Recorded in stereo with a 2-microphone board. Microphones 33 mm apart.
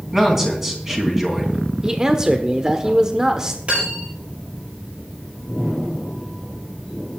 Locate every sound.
0.1 s a man speaking: 15° right (ahead or behind), 4 m
1.8 s a man speaking: 20° right (ahead or behind), 1.0 m
3.7 s cutlery clinking: 45° right (ahead or behind), 8 m